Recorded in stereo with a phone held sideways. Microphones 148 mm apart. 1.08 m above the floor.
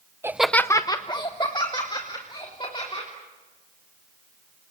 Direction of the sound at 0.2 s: 15° right (ahead or behind).